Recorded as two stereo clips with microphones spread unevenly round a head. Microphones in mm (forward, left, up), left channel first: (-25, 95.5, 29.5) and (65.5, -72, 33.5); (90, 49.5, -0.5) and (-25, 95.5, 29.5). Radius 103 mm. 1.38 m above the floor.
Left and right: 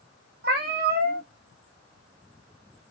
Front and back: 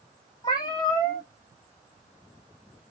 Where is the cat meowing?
95° right, 1.1 m.